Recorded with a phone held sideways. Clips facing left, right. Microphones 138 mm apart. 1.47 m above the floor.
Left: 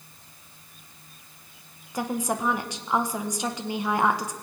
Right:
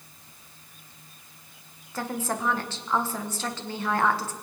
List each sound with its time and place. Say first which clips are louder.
1.9 s a woman speaking: left 3 dB; 15° left (ahead or behind), 1.5 m